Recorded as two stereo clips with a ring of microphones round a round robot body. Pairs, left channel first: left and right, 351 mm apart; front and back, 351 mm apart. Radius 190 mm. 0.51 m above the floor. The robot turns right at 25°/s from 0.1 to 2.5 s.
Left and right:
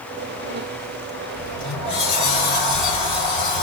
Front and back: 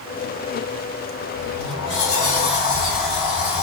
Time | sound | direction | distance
1.4 | a sliding door | 35° left | 2.5 m